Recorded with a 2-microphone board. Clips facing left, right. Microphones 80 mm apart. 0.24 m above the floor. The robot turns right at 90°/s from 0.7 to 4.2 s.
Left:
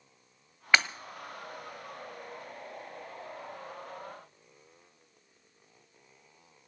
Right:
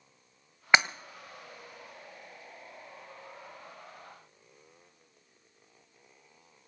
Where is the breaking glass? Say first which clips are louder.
Right 2 dB; 20° right (ahead or behind), 0.8 m; by 0.9 s 15° right (ahead or behind), 0.8 m.